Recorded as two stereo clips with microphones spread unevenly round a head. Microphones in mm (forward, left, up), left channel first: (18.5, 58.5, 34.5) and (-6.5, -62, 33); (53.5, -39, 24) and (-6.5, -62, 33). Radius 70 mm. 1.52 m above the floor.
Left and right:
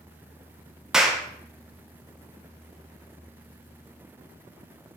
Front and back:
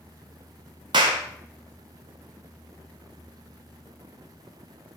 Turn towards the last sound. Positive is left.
turn(degrees=170)